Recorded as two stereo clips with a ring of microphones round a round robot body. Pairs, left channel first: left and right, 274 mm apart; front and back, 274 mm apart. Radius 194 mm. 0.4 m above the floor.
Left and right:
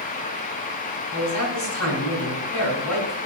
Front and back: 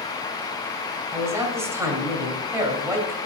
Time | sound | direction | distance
1.1 | a man speaking | 100° left | 2.5 m